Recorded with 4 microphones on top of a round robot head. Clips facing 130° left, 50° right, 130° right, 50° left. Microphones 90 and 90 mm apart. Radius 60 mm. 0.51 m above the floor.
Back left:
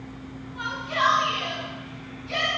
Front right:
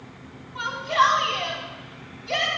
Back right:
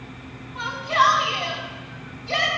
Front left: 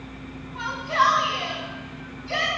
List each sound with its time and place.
0.6 s a shout: 40° right, 4.5 m